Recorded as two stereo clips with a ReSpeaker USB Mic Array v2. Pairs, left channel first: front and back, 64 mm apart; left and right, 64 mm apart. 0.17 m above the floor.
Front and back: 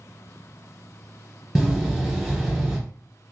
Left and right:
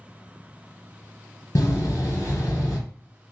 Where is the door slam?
100° left, 1.4 m.